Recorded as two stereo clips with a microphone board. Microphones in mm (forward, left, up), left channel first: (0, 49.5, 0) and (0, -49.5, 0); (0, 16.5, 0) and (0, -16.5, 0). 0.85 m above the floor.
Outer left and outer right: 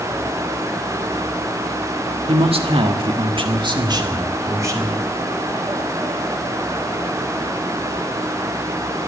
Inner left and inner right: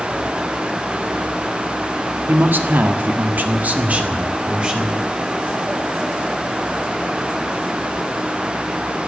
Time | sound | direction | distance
2.3 | a man speaking | 70° right (ahead or behind) | 1.7 m